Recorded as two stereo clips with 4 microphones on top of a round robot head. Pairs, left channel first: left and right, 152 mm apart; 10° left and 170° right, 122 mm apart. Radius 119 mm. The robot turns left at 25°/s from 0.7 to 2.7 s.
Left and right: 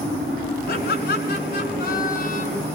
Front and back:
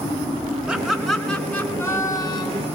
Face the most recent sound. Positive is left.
turn(degrees=55)